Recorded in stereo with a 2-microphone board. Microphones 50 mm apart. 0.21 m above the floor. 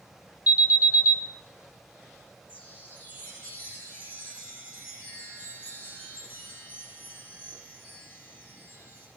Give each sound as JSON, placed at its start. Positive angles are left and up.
{"t": 0.5, "sound": "an alarm", "side_deg": -30, "distance_m": 3.0}
{"t": 2.5, "sound": "a chime", "side_deg": 35, "distance_m": 7.5}